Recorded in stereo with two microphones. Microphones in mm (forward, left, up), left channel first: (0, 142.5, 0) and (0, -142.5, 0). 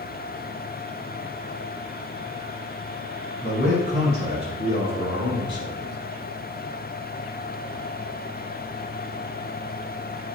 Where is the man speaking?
30° left (ahead or behind), 1.5 m; by 6.0 s 45° left (ahead or behind), 1.5 m.